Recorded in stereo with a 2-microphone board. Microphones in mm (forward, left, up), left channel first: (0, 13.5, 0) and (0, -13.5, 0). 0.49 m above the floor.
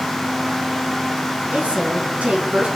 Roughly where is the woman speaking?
Right.